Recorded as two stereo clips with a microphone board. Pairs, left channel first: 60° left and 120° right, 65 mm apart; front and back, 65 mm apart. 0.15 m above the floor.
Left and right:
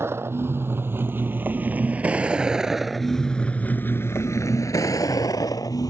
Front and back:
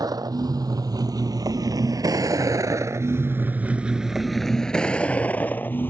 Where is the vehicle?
170° right; by 5.9 s 55° left.